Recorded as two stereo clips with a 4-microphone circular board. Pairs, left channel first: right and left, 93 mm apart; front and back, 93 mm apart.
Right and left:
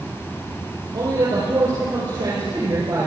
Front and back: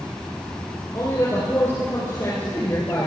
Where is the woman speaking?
55° left, 4 m.